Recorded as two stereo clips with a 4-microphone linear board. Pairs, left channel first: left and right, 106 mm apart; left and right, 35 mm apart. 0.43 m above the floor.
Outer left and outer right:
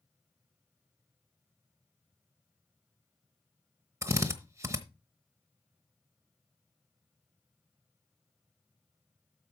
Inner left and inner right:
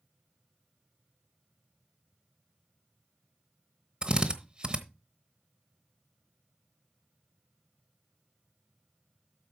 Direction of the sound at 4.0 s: 25° right (ahead or behind).